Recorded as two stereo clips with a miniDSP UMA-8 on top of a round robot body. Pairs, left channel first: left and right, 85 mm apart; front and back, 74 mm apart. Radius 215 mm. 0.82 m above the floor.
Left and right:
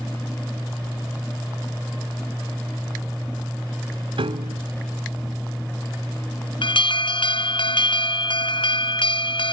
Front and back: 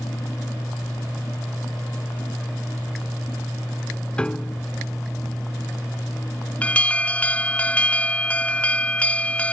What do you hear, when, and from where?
4.2 s a piano: 75° right
6.6 s an alarm: 75° left